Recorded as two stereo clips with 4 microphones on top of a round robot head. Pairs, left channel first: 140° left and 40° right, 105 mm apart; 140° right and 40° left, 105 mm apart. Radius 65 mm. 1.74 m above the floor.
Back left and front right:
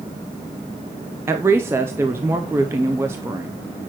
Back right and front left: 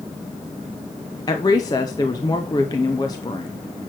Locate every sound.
1.3 s a woman speaking: 100° right, 0.6 m